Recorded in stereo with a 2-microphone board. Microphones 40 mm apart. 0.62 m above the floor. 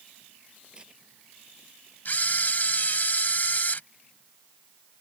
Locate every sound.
0.7 s tearing paper: 25° right (ahead or behind)
2.0 s a camera shutter: 45° left (ahead or behind)